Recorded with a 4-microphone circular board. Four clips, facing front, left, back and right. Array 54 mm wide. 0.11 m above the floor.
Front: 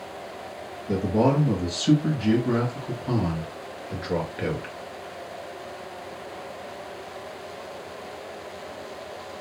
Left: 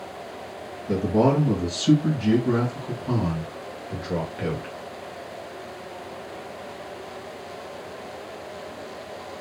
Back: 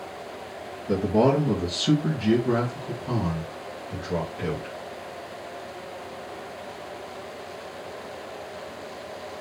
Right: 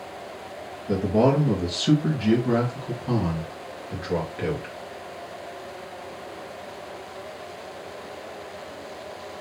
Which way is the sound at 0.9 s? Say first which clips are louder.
Even, back 1 dB; 150° right.